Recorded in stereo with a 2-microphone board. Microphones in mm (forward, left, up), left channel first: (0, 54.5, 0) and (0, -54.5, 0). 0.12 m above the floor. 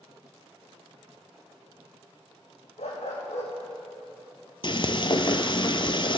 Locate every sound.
2.8 s a dog barking: 80° left, 3 m
4.6 s frying: 50° left (ahead or behind), 0.7 m